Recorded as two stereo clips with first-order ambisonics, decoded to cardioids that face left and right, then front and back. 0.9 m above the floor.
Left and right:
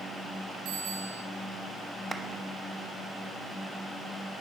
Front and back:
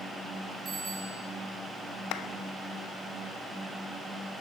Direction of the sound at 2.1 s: 15° right.